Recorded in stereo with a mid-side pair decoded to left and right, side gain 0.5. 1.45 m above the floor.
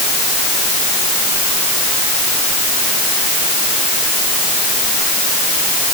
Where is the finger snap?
No finger snap in this recording.